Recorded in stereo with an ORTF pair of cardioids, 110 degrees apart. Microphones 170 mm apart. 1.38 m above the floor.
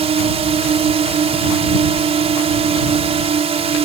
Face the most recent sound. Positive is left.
turn(degrees=-35)